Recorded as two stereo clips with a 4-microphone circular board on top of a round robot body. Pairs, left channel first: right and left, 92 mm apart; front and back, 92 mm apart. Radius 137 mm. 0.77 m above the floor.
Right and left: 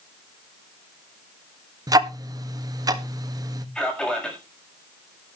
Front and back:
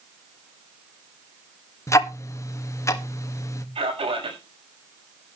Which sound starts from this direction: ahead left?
Ticking, at 1.9 s.